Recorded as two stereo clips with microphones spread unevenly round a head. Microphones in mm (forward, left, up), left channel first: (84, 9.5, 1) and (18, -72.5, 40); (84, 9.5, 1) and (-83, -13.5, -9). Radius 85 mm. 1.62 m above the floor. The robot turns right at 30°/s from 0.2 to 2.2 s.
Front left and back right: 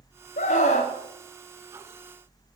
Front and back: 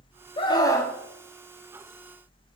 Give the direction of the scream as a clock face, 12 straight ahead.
10 o'clock.